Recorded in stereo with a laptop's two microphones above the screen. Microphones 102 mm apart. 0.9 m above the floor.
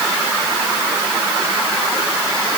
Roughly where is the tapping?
No tapping in this recording.